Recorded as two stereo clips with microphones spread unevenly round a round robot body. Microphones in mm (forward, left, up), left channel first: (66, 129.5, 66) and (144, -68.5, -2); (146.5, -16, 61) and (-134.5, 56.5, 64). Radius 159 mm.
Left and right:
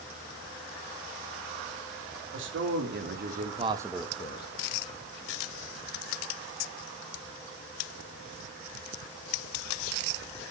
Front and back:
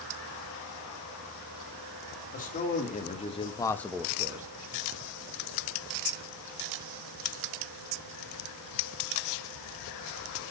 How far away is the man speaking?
About 2.0 m.